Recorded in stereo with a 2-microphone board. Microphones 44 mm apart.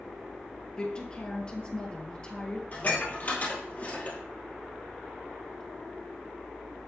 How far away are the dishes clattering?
About 2 m.